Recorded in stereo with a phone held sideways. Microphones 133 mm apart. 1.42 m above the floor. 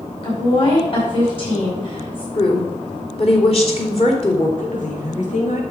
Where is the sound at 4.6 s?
70° left (ahead or behind), 3 m.